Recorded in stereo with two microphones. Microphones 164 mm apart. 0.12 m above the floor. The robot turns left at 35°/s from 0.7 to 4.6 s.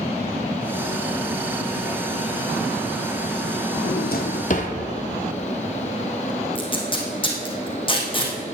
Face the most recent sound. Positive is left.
turn(degrees=30)  # may be behind; listen again after turning